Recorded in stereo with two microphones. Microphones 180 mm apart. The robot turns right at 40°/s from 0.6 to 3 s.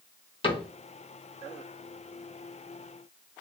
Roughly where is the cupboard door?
Left.